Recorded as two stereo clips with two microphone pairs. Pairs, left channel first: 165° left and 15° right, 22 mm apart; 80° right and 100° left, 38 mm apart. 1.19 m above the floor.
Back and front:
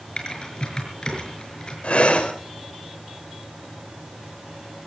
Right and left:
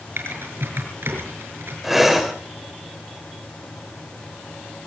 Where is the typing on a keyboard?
110° left, 5.5 m.